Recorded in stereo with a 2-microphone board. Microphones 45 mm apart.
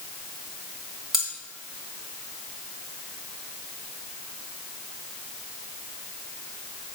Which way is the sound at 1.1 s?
5° right (ahead or behind).